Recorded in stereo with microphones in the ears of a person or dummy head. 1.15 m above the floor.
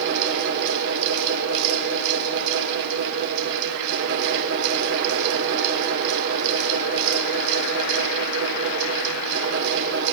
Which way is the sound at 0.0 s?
65° right (ahead or behind).